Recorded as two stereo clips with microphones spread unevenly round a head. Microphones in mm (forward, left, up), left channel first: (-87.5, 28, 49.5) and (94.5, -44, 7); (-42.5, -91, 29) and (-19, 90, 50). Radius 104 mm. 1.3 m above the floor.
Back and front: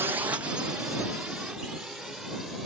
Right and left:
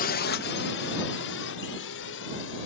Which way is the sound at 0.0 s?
90° right.